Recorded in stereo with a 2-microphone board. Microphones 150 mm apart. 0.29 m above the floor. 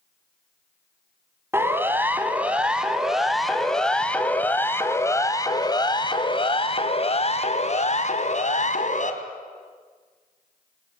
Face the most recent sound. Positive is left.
turn(degrees=55)  # may be behind; listen again after turning